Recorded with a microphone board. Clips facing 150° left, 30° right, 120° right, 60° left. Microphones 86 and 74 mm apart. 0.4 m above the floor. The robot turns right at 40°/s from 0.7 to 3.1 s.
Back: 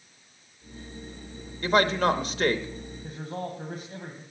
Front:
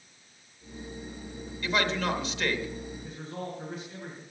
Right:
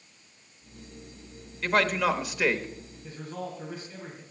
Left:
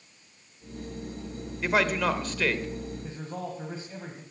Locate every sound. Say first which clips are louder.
1.6 s a man speaking: back 6 dB, right 1 dB; 140° left, 1.0 m; by 2.7 s straight behind, 1.0 m
3.0 s a man speaking: back 6 dB, left 1 dB; 115° left, 2 m